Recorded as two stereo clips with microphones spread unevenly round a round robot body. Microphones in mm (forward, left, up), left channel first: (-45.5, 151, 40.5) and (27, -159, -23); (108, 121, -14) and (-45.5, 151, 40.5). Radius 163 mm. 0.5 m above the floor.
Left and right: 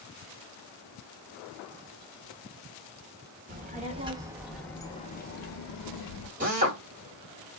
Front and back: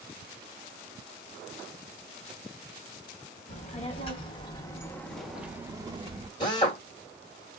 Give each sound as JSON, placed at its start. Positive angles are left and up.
{"t": 3.5, "sound": "a child speaking", "azimuth_deg": -25, "distance_m": 1.1}
{"t": 6.4, "sound": "a drill", "azimuth_deg": -35, "distance_m": 1.8}